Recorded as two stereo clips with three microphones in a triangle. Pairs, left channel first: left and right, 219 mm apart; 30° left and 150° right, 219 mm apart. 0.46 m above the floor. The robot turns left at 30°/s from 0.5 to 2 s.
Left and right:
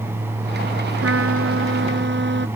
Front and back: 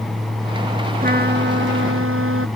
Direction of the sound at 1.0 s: 100° right.